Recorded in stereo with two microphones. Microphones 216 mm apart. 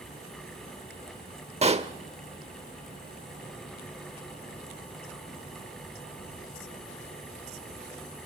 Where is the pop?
30° right (ahead or behind), 0.8 m.